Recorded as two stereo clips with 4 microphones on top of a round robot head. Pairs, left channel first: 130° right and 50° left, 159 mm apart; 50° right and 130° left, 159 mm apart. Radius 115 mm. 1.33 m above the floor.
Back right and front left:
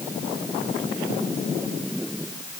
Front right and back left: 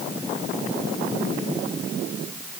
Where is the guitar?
No guitar in this recording.